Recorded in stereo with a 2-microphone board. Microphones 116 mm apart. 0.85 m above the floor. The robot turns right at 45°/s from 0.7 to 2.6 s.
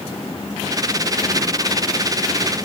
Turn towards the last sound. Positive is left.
No sound to turn to.